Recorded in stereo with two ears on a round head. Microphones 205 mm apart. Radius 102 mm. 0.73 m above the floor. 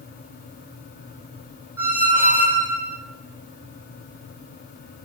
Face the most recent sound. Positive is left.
turn(degrees=-10)  # may be behind; listen again after turning